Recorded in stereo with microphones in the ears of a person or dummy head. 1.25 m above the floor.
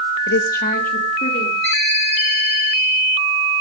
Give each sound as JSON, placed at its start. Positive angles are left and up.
{"t": 0.3, "sound": "a woman speaking", "side_deg": 65, "distance_m": 1.2}
{"t": 1.6, "sound": "a ringtone", "side_deg": 5, "distance_m": 8.0}